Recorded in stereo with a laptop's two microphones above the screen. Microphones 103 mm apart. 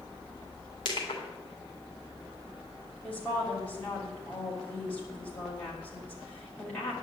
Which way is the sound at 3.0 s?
15° left (ahead or behind).